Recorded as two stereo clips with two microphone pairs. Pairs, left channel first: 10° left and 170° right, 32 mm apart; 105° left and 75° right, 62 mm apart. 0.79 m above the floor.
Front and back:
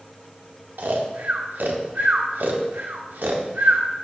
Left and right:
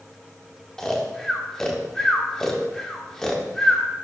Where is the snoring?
170° right, 0.7 m.